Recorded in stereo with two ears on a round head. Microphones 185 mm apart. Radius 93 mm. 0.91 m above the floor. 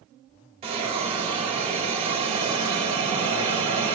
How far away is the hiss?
About 1.8 m.